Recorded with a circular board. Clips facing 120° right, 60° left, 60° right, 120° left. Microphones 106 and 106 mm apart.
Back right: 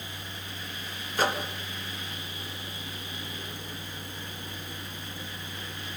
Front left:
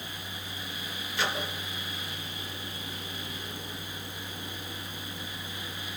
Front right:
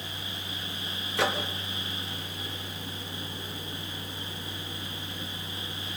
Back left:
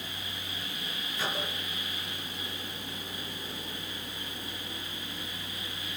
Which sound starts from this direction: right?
A microwave, at 1.2 s.